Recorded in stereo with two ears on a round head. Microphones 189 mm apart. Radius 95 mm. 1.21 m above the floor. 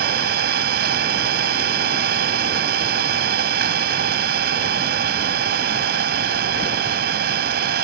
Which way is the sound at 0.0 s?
50° right (ahead or behind).